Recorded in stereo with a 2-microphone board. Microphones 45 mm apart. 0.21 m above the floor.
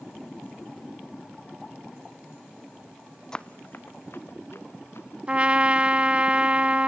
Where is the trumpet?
25° right (ahead or behind), 0.7 m.